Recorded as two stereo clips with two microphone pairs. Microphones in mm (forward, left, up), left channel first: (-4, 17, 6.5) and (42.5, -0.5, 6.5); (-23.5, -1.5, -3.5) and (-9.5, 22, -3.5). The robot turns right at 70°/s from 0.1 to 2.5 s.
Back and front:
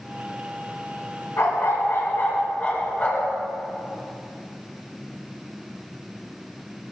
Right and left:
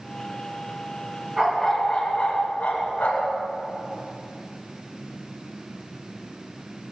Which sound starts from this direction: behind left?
A dog barking, at 1.4 s.